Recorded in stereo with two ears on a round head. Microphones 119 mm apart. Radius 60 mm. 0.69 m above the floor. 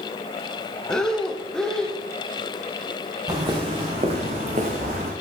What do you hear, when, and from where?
0.9 s breathing: 5° left (ahead or behind), 0.8 m
3.3 s footsteps: 30° right (ahead or behind), 2.5 m; by 5.1 s 70° right (ahead or behind), 2.5 m